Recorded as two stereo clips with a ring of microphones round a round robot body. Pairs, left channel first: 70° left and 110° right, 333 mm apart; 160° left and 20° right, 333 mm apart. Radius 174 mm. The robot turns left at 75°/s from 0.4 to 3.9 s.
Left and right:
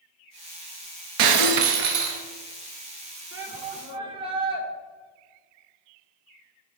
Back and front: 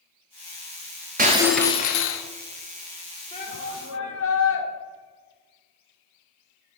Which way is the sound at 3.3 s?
135° right.